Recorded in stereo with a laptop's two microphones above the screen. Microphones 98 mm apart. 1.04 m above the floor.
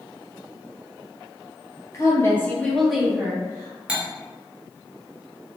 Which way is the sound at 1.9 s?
35° left (ahead or behind).